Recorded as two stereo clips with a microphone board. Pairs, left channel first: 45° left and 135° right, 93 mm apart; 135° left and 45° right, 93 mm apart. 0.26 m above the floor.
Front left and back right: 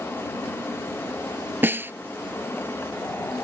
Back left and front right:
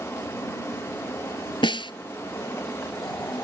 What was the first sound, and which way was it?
A snare drum, 160° left.